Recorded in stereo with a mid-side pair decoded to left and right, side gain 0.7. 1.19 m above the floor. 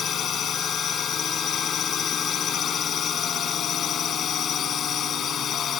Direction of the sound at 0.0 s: 40° left.